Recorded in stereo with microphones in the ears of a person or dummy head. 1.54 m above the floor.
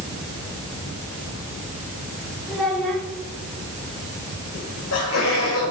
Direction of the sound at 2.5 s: Centre (ahead or behind).